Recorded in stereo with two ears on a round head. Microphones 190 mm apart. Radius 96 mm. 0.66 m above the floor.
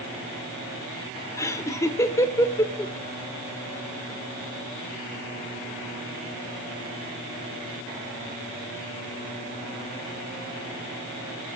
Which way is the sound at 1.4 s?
15° left (ahead or behind).